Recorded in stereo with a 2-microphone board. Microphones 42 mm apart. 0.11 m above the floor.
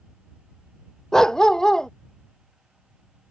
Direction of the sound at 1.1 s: 15° left (ahead or behind).